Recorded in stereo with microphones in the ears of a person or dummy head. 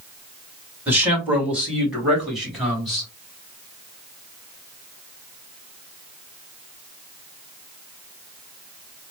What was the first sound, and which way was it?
A man speaking, 10° right (ahead or behind).